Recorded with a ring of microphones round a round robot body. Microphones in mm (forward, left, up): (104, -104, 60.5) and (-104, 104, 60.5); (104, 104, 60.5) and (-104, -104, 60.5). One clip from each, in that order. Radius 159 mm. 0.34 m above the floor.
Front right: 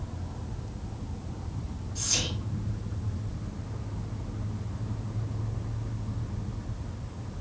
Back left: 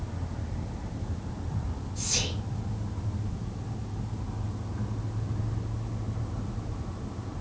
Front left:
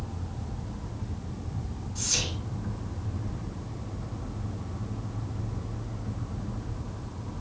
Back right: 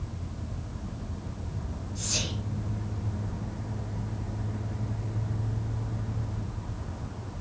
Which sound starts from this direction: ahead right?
Whispering, at 1.9 s.